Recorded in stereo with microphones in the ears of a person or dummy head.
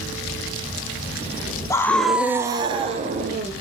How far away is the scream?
About 0.8 m.